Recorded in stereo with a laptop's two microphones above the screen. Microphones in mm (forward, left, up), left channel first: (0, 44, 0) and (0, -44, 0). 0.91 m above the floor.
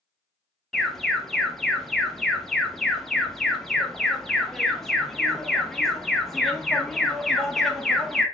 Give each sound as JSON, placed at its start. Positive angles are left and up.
{"t": 0.7, "sound": "an alarm", "side_deg": 5, "distance_m": 0.5}